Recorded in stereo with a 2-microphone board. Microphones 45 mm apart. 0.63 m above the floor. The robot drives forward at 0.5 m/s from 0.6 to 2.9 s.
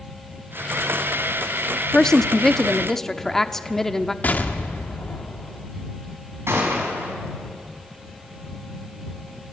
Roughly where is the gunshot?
Right.